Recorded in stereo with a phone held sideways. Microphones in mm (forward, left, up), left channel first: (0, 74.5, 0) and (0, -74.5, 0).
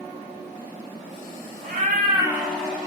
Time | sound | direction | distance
1.6 | a cat meowing | 70° right (ahead or behind) | 1.2 m